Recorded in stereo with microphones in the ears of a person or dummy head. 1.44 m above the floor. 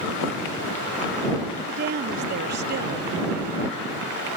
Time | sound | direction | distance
1.7 | a woman speaking | 50° right (ahead or behind) | ?